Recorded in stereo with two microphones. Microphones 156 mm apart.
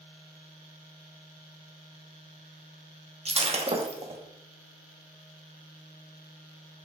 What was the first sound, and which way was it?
Breaking glass, 40° right (ahead or behind).